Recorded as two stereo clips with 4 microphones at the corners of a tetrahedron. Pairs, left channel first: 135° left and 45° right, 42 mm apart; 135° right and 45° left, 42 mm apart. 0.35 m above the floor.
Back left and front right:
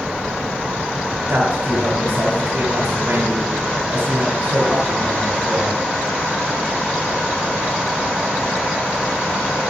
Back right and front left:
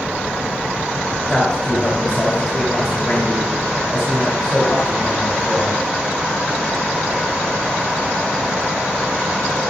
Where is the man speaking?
65° right, 2.5 m.